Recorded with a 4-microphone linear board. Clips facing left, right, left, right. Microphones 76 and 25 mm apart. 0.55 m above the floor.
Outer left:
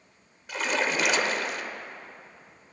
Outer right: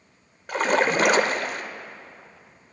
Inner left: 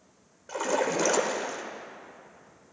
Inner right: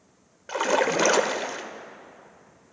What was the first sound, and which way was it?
A splash, 45° right (ahead or behind).